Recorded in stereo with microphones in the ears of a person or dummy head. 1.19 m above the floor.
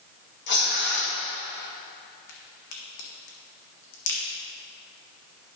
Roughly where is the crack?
Left.